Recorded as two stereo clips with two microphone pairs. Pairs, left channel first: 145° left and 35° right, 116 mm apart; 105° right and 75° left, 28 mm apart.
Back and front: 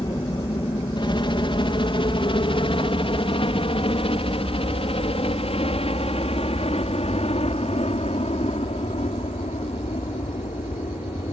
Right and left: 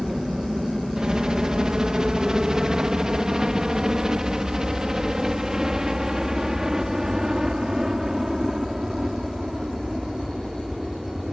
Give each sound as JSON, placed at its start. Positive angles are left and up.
{"t": 0.0, "sound": "a helicopter", "azimuth_deg": 130}